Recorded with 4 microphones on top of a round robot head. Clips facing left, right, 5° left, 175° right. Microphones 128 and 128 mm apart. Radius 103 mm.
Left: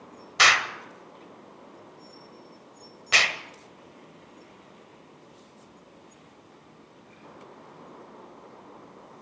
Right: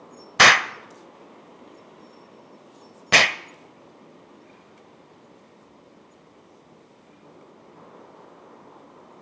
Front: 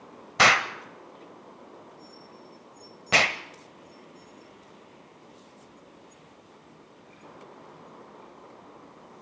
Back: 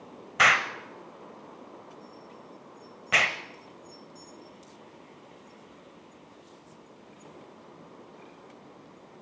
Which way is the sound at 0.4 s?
60° right.